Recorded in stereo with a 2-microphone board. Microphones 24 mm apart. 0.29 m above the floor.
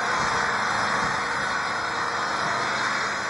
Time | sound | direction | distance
0.0 | an engine running | 5° right (ahead or behind) | ?